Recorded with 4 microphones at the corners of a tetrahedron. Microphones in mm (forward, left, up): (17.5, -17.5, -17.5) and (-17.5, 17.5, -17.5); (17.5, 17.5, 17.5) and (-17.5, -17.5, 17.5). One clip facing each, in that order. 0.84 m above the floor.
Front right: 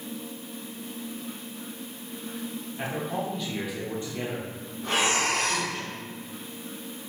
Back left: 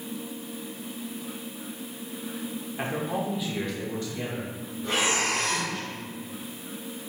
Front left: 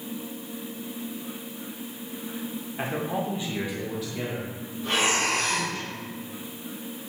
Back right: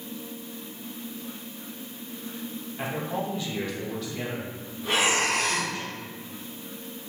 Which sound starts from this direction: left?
A man speaking, at 2.8 s.